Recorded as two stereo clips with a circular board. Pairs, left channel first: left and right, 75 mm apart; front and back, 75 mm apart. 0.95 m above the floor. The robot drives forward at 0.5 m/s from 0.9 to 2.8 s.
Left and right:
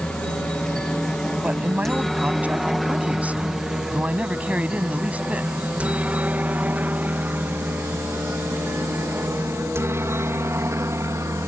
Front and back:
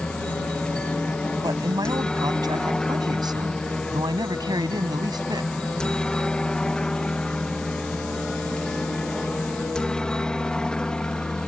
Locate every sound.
0.0 s a helicopter: 45° left; by 11.5 s 75° right
1.4 s a man speaking: 160° right